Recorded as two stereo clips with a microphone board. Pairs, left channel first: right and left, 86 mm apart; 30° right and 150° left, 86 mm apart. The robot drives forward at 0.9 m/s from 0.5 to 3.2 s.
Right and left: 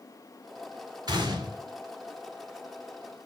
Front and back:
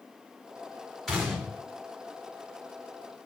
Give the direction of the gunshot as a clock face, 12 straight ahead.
10 o'clock.